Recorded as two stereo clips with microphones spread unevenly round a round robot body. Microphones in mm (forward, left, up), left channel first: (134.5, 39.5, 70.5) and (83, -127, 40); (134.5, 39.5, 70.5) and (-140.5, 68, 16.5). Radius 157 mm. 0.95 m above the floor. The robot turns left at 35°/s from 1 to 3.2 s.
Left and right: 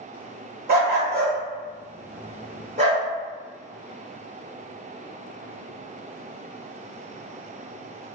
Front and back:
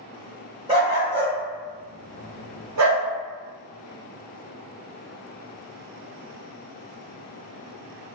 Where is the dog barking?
105° right, 0.8 m; by 3.0 s 175° right, 0.8 m.